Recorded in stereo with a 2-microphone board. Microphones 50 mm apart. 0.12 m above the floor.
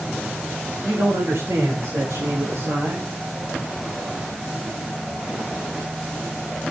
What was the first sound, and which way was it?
A man speaking, 70° right (ahead or behind).